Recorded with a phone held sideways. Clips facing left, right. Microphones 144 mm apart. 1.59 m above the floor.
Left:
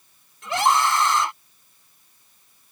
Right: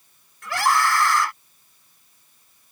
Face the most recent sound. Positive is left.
turn(degrees=20)  # may be behind; listen again after turning